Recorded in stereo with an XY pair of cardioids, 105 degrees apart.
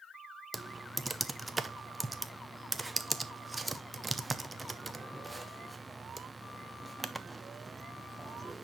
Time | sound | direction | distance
0.5 | typing on a keyboard | 10° right | 0.6 m